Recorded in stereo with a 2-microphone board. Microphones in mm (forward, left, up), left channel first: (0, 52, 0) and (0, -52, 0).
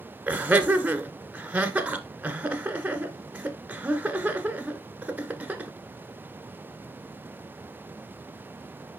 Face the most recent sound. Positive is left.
turn(degrees=-15)  # may be behind; listen again after turning